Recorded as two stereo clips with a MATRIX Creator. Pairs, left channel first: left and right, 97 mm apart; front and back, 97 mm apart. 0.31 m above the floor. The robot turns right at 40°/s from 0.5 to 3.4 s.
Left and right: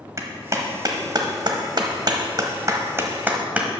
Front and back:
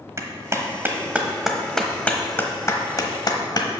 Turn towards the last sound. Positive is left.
turn(degrees=-20)